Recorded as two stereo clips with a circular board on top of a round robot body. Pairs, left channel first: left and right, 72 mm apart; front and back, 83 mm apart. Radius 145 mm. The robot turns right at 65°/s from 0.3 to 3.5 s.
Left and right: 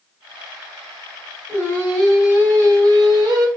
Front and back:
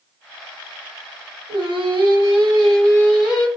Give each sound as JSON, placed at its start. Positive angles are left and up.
{"t": 1.5, "sound": "singing", "azimuth_deg": 145, "distance_m": 1.9}